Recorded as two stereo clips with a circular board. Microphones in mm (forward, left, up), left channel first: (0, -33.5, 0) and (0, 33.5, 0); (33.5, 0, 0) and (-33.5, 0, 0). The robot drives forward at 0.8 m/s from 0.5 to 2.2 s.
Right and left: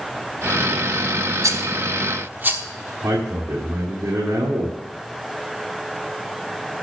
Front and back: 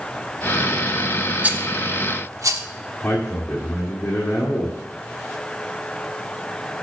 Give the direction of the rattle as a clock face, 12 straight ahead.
8 o'clock.